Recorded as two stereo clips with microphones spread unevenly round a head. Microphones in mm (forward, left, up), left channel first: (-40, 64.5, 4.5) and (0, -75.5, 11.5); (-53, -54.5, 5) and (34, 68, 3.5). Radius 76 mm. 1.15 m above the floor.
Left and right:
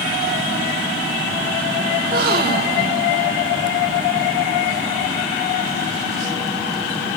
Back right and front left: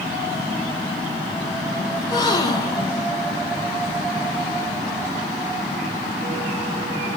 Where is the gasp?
60° right, 1.3 m.